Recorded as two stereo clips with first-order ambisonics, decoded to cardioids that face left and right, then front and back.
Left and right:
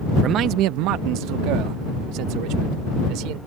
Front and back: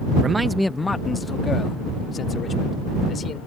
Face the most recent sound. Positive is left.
turn(degrees=-65)